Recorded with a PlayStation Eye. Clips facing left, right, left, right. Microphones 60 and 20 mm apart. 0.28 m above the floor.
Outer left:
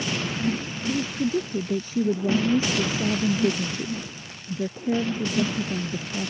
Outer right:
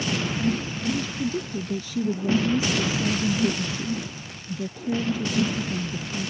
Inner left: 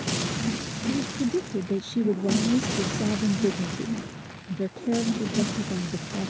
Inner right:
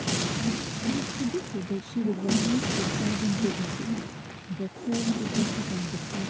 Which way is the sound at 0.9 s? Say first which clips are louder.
Outer left 3 dB, inner left 4 dB; 35° left (ahead or behind).